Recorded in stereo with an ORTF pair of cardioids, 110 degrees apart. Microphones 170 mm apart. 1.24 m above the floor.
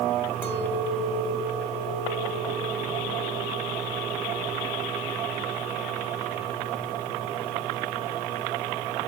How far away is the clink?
About 3 m.